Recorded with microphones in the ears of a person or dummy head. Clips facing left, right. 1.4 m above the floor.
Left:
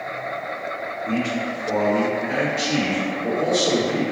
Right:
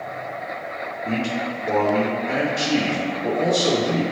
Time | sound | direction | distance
1.1 | a man speaking | 65° right (ahead or behind) | 2.0 m